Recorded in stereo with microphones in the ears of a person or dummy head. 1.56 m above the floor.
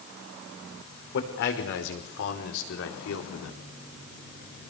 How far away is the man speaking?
About 5 m.